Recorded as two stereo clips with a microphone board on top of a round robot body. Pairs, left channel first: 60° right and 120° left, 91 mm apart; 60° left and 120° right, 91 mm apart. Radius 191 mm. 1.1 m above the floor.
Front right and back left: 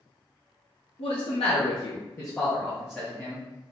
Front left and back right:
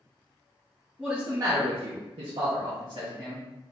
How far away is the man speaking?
About 0.8 m.